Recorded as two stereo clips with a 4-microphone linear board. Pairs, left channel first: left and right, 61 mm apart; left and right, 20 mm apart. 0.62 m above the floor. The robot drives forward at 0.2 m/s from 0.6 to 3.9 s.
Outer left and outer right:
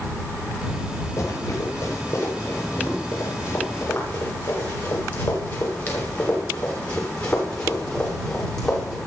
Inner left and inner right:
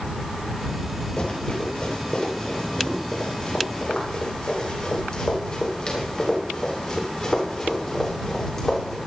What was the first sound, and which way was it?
Running footsteps, 50° left (ahead or behind).